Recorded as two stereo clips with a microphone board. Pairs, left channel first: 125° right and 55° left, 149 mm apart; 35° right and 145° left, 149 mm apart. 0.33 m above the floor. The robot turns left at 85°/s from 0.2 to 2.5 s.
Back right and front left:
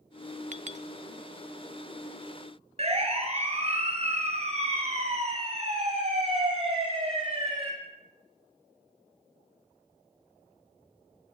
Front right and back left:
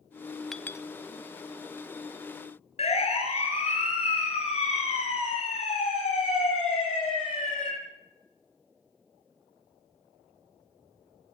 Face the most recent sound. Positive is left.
turn(degrees=10)